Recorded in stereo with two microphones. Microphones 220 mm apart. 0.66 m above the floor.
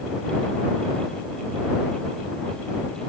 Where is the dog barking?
No dog barking in this recording.